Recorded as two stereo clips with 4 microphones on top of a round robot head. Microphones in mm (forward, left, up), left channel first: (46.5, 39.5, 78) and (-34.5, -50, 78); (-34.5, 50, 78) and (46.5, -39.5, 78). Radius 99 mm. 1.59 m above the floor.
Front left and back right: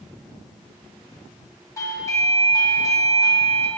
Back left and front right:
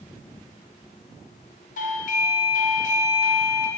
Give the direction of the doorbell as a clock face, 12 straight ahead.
8 o'clock.